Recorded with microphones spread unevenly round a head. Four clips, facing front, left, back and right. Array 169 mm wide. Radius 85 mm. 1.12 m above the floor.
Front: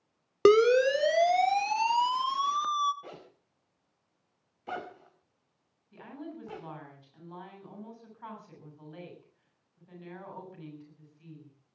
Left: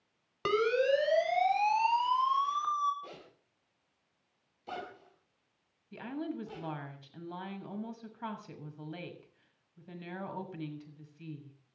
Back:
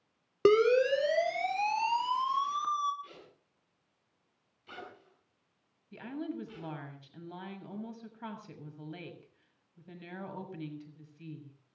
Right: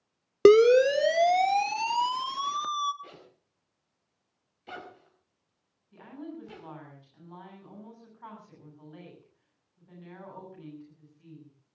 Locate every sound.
0.5 s a siren: 85° right, 3 m; by 2.9 s 65° right, 1.6 m
3.0 s a zipper: 5° left, 4.5 m
5.9 s a woman speaking: 125° left, 6.5 m